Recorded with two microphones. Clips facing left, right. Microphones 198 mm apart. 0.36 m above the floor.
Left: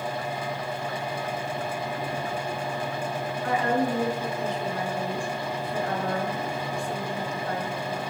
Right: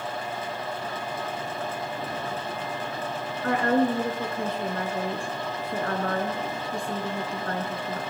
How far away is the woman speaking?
About 4 m.